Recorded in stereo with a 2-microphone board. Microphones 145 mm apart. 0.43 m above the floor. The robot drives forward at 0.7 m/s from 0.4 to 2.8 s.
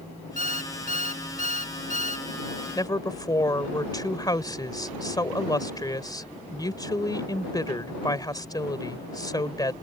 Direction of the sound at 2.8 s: 30° left (ahead or behind).